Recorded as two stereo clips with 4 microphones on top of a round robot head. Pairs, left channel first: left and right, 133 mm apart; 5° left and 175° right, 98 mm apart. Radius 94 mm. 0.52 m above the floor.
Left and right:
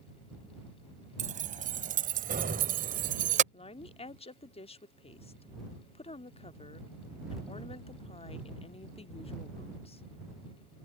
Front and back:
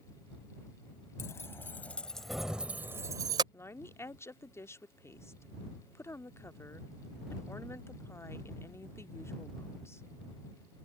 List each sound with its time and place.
1.2 s keys jangling: 65° right; by 3.4 s 120° right
3.5 s a woman speaking: 65° left